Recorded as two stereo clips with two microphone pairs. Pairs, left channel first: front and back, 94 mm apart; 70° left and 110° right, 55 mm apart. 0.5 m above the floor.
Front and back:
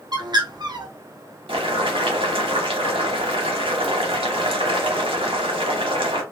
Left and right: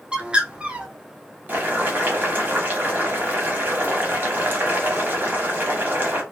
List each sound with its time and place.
0.1 s a bird: 170° right, 0.6 m
1.5 s boiling: 165° right, 1.0 m